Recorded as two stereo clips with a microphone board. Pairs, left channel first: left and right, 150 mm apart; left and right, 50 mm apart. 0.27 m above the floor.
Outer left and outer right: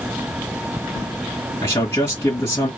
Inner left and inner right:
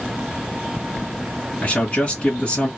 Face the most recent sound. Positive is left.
turn(degrees=25)  # may be behind; listen again after turning